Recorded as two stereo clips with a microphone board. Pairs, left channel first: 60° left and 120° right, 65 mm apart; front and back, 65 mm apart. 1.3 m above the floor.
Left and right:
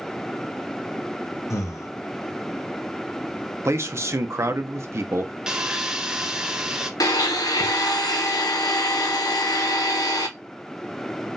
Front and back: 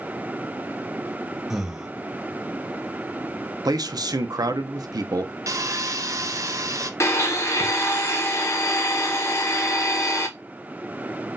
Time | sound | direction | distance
1.5 | breathing | 100° left | 0.6 m
3.6 | a man speaking | 165° right | 0.6 m
5.5 | sawing | 160° left | 0.6 m
7.0 | a blender | 45° left | 0.9 m